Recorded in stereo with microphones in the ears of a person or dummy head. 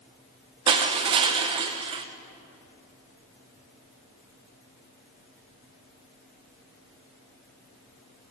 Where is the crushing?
25° right (ahead or behind), 0.6 m.